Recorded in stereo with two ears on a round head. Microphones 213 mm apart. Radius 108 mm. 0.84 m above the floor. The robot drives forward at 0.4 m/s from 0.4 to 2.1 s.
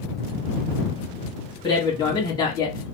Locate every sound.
1.6 s a man speaking: 20° left (ahead or behind), 1.1 m; by 2.8 s 15° left (ahead or behind), 1.3 m